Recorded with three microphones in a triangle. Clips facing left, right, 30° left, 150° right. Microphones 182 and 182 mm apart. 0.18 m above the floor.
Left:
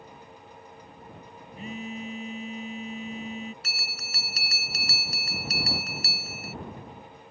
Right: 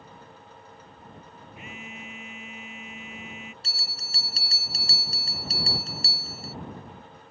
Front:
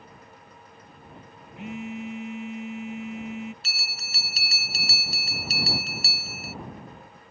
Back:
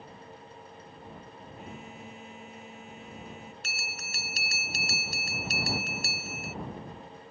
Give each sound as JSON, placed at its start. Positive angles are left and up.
{"t": 1.6, "sound": "a phone buzzing", "azimuth_deg": 35}
{"t": 3.6, "sound": "a bell", "azimuth_deg": -140}